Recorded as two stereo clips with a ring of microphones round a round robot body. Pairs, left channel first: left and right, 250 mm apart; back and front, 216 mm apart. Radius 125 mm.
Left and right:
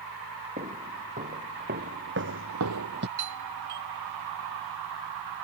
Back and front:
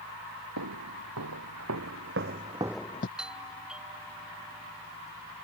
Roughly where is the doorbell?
Right.